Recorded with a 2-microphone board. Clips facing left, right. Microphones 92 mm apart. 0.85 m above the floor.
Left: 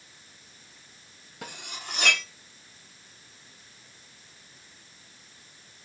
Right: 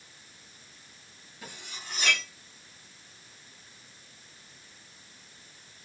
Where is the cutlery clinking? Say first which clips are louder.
Left 4 dB; 75° left (ahead or behind), 0.7 m.